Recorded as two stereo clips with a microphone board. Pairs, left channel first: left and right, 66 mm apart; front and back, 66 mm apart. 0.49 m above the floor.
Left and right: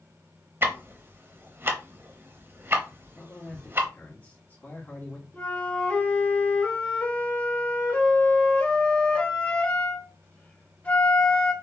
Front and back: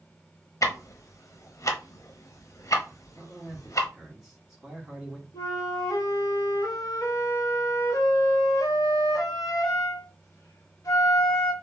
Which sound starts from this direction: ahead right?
Ticking, at 0.6 s.